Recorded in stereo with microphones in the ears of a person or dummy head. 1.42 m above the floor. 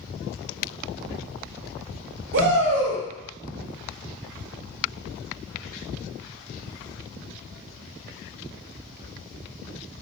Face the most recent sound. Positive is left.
turn(degrees=-65)  # may be behind; listen again after turning